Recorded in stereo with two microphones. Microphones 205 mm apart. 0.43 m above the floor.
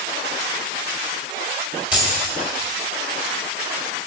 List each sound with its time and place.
1.9 s keys jangling: 5° right (ahead or behind), 1.6 m